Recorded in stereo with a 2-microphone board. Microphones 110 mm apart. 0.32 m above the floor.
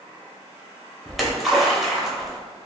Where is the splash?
Centre (ahead or behind), 0.7 m.